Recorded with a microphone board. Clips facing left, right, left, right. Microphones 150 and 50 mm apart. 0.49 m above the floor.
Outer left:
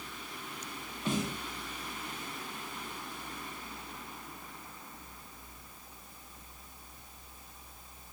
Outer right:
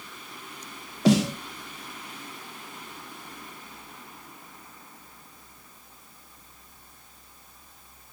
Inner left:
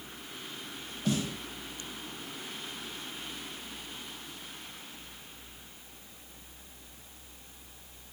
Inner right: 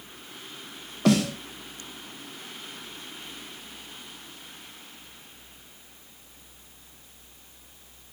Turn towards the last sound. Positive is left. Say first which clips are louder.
# outer right 13 dB, inner right 10 dB
turn(degrees=-80)